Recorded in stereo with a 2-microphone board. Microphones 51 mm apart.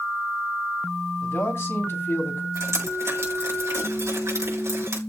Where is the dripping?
65° right (ahead or behind), 6 m.